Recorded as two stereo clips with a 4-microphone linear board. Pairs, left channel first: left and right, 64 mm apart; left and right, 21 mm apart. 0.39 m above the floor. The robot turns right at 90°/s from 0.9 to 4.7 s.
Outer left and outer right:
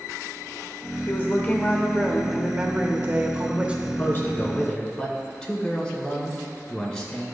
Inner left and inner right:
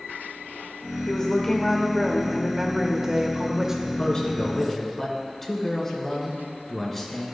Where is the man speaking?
90° left, 1.4 m; by 7.2 s 165° left, 1.4 m.